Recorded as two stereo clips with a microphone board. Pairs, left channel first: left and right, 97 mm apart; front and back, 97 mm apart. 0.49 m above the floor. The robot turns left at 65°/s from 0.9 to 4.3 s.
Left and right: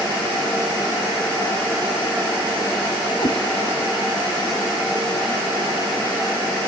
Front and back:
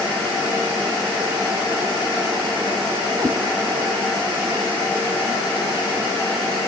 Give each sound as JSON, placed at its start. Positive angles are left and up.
{"t": 3.2, "sound": "a cat meowing", "azimuth_deg": 125, "distance_m": 1.4}